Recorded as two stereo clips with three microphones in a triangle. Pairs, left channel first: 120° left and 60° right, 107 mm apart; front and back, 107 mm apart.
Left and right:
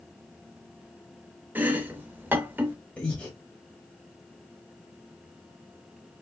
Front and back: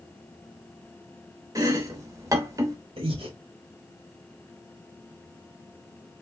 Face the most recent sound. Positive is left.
turn(degrees=-165)